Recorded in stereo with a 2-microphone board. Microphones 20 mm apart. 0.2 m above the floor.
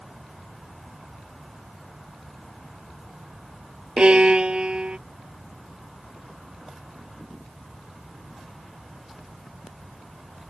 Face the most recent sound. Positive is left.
turn(degrees=-65)  # may be behind; listen again after turning